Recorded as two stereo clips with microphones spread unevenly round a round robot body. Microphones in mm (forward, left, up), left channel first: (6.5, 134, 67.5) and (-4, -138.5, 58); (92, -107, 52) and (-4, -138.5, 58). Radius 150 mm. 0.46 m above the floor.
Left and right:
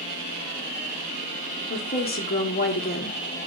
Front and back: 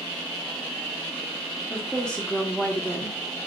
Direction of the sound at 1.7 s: 85° left.